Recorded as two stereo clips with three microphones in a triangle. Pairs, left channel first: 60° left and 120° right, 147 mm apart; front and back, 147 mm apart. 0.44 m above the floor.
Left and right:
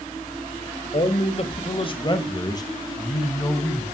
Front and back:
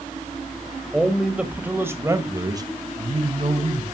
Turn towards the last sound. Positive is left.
turn(degrees=135)